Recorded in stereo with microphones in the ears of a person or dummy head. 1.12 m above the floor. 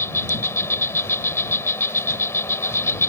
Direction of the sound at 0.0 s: 15° left (ahead or behind).